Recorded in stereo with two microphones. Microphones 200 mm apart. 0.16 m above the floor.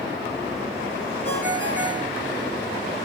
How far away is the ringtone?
About 3 m.